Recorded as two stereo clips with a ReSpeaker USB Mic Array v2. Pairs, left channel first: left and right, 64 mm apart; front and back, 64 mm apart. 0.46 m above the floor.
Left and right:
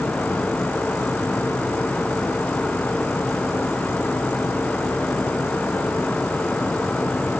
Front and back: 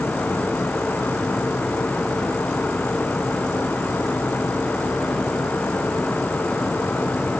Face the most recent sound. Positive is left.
No sound to turn to.